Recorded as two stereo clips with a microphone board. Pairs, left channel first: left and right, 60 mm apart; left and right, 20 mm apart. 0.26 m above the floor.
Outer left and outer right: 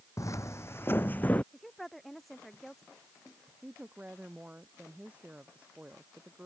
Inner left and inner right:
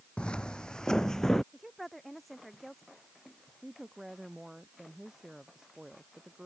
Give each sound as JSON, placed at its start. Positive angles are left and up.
{"t": 0.2, "sound": "footsteps", "side_deg": 65}
{"t": 1.5, "sound": "a woman speaking", "side_deg": 0}
{"t": 3.6, "sound": "a woman speaking", "side_deg": -25}